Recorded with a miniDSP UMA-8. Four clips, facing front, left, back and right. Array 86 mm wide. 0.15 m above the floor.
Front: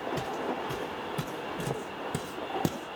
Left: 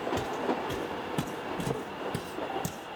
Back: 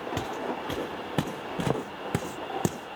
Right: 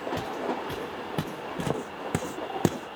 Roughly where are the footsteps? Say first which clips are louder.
Even, back 1 dB; behind.